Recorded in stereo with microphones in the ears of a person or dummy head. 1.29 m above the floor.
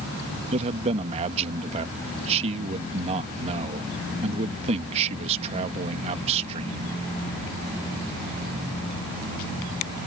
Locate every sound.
0.5 s a man speaking: 35° right (ahead or behind)